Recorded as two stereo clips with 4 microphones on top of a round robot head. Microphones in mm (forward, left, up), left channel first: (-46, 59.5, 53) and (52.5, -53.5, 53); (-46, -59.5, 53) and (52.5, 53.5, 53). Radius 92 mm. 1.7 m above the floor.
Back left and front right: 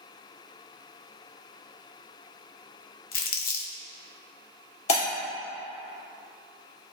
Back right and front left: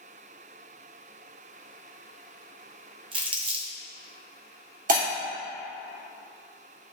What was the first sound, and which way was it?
Crumpling, 105° left.